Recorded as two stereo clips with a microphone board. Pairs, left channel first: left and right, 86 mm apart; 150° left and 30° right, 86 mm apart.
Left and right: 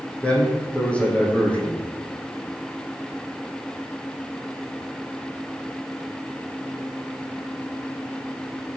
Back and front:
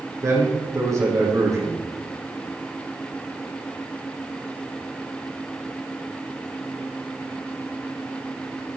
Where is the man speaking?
15° left, 5 m.